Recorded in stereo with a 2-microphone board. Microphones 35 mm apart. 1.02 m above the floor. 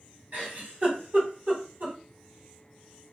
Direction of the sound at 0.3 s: 55° right (ahead or behind).